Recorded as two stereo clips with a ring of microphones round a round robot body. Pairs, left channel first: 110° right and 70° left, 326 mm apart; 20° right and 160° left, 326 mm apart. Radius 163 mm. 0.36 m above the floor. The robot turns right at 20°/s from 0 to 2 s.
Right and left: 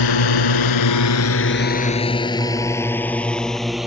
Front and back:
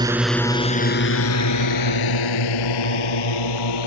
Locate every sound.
0.0 s a drone: 125° right; by 3.9 s 20° right